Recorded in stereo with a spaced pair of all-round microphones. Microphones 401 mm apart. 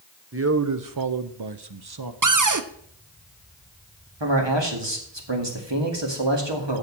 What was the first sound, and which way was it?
A man speaking, 30° right (ahead or behind).